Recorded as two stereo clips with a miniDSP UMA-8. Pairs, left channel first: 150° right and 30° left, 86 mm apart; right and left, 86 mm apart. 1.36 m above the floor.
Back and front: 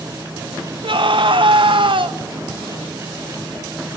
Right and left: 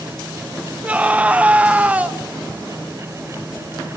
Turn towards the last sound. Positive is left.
turn(degrees=15)